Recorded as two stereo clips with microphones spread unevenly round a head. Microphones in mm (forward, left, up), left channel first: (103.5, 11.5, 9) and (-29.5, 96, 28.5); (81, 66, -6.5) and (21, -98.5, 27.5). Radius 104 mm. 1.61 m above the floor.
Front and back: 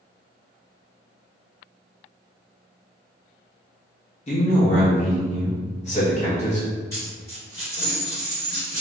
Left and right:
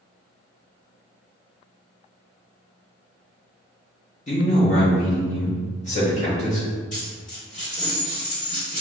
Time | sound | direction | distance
4.3 | a man speaking | 15° left | 0.9 m
6.9 | a dropped coin | 40° left | 1.5 m